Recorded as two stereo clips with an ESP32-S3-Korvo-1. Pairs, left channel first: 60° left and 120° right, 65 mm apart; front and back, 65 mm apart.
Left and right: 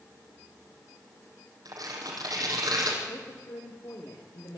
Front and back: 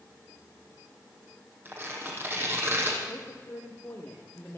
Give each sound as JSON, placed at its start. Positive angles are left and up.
{"t": 1.6, "sound": "tearing paper", "azimuth_deg": -125, "distance_m": 5.0}
{"t": 3.1, "sound": "a woman speaking", "azimuth_deg": 60, "distance_m": 5.5}